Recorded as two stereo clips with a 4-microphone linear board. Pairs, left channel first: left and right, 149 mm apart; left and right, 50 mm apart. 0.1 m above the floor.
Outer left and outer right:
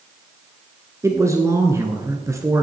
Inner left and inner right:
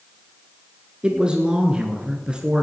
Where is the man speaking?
20° right (ahead or behind), 1.3 m.